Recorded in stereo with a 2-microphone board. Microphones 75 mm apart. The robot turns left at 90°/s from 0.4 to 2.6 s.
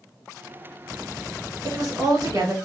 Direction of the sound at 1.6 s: 55° right.